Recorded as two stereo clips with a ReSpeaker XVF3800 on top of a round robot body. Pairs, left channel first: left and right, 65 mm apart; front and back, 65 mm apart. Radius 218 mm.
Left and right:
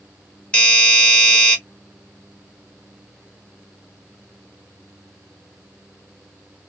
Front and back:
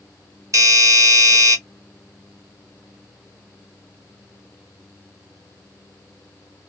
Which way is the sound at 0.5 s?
160° left.